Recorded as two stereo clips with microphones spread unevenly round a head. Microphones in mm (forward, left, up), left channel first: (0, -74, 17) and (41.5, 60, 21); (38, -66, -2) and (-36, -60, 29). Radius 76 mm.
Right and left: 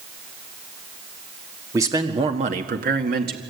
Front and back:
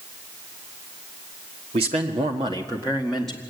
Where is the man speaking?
145° left, 2 m; by 3.4 s 70° left, 2 m.